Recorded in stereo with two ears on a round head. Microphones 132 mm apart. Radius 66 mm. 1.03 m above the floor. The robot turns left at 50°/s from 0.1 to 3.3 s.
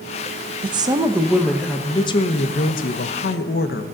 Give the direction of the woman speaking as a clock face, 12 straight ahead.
5 o'clock.